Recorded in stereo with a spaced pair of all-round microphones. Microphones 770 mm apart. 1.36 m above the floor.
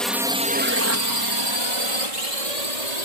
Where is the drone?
Centre (ahead or behind); by 3.0 s 65° right (ahead or behind).